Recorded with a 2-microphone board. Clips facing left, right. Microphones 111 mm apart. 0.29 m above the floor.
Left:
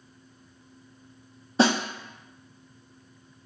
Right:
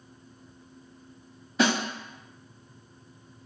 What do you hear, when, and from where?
1.6 s a snare drum: 30° left (ahead or behind), 0.5 m